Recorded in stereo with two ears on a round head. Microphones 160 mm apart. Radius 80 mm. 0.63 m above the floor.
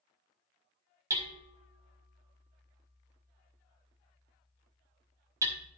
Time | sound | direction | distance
1.1 | hammering | 20° right (ahead or behind) | 1.8 m